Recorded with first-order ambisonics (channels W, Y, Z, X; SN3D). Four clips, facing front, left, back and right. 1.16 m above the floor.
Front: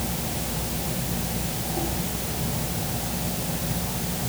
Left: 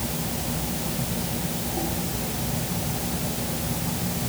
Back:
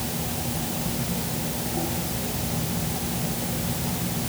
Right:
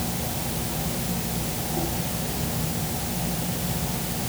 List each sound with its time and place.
Only background noise.